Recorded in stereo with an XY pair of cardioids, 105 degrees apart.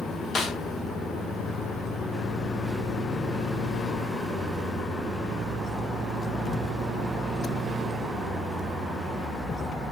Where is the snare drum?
55° left, 1.0 m.